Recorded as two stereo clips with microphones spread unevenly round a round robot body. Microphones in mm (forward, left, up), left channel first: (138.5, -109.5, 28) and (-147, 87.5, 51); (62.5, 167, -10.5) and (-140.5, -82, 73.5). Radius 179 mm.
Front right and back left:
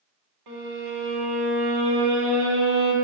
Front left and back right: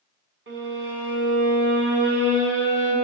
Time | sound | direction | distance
0.5 | a violin | 170° left | 1.8 m